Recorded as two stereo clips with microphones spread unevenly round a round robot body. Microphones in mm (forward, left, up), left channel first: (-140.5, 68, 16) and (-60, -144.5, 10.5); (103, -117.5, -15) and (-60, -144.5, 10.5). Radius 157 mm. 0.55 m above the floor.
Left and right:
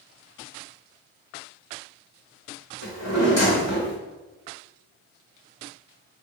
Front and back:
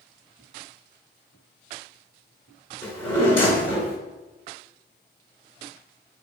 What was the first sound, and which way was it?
A drawer, 65° left.